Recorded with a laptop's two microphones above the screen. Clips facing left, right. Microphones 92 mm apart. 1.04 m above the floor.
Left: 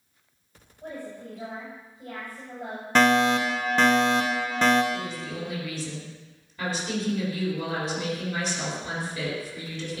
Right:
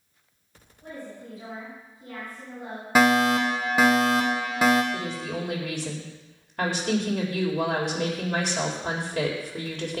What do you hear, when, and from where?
0.8 s a woman speaking: 60° left (ahead or behind), 6.5 m
3.0 s a fire alarm: 10° right (ahead or behind), 1.5 m
4.9 s a woman speaking: 65° right (ahead or behind), 3.5 m